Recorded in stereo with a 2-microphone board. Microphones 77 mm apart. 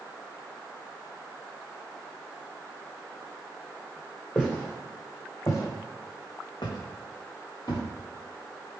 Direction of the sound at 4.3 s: 5° left (ahead or behind).